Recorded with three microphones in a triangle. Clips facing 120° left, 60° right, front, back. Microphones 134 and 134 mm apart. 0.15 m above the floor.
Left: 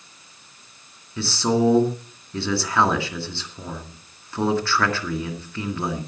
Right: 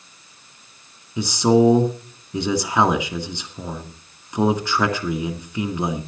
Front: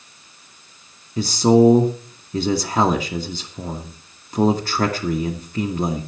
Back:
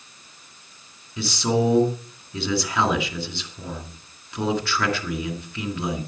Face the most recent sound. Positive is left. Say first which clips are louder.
# right 5 dB, front 9 dB
turn(degrees=5)